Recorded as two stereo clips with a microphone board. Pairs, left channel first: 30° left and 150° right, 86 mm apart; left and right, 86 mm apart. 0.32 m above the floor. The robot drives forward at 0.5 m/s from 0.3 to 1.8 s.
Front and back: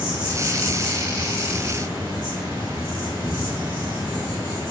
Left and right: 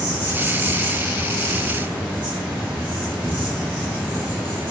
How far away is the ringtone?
I don't hear a ringtone.